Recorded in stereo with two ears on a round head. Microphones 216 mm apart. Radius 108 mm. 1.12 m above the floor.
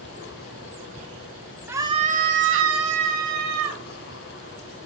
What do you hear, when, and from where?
1.7 s a scream: 10° right (ahead or behind), 1.6 m; by 3.8 s 75° right (ahead or behind), 3 m